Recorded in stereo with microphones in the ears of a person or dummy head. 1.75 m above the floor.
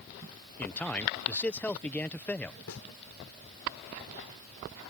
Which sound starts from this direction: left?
A snare drum, at 2.7 s.